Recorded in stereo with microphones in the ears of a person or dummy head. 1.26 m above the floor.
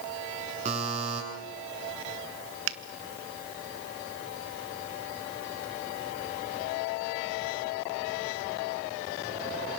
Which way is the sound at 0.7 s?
40° right (ahead or behind).